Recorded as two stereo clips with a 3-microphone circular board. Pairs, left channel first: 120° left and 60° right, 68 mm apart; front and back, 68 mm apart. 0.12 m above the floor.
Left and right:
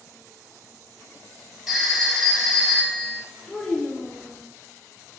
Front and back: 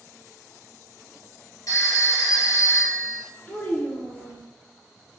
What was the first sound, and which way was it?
A phone ringing, 25° left.